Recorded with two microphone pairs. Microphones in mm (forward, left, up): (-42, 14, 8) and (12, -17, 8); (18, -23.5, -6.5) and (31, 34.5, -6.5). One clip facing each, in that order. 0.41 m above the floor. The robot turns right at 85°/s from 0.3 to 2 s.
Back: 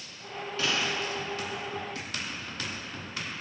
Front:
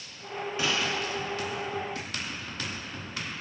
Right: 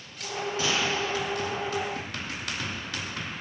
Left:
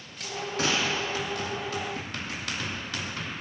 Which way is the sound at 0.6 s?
40° left.